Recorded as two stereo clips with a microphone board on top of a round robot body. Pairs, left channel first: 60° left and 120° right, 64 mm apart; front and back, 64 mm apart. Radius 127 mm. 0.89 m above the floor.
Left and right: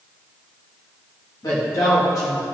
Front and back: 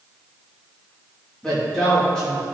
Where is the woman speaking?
75° left, 2.5 m.